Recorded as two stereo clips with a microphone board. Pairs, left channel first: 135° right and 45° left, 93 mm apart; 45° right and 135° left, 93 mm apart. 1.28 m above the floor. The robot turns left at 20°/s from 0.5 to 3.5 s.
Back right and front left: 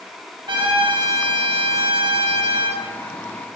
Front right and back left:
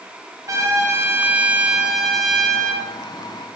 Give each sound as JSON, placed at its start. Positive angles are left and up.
{"t": 0.5, "sound": "a trumpet", "azimuth_deg": 80, "distance_m": 1.3}